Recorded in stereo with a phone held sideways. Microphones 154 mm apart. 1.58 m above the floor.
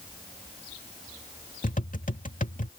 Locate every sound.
1.6 s tapping: 55° left (ahead or behind)